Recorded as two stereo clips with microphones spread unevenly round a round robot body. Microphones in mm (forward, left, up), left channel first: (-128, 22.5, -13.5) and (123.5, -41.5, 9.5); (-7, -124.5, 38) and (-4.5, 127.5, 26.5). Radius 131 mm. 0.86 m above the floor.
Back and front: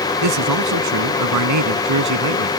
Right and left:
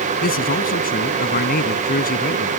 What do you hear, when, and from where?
0.2 s a man speaking: 35° right